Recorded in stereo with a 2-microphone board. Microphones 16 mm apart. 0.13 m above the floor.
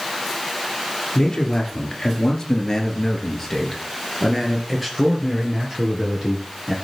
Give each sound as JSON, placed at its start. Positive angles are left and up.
{"t": 1.1, "sound": "a man speaking", "side_deg": 35, "distance_m": 3.0}